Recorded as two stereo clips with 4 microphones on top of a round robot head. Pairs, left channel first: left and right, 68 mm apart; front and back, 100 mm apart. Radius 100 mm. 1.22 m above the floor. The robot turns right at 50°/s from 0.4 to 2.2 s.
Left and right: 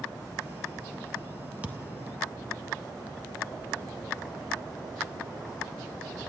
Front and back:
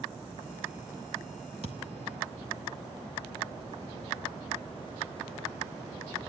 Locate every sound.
1.6 s a thud: 145° right, 0.5 m; by 2.0 s 125° right, 0.5 m